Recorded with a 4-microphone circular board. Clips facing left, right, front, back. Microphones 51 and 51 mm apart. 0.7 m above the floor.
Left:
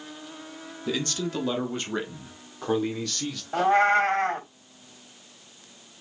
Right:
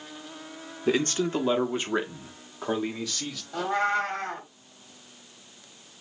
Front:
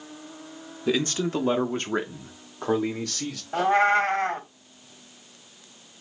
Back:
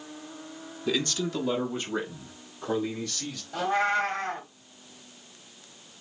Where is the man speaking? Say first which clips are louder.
Right 5 dB, front 4 dB; 60° right, 0.7 m; by 3.4 s 5° right, 2 m.